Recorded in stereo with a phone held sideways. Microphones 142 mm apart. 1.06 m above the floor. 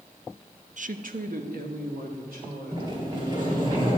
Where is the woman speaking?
60° right (ahead or behind), 0.5 m; by 3.7 s 80° right, 4.5 m.